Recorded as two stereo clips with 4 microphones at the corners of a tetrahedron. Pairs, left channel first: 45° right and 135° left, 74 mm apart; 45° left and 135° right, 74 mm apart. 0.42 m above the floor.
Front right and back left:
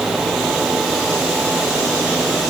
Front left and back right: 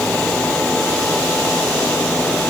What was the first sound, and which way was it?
Only background noise.